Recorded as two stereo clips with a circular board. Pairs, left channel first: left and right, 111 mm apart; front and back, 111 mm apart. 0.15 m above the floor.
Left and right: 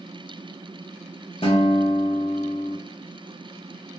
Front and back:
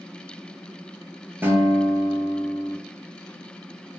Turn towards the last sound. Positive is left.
turn(degrees=110)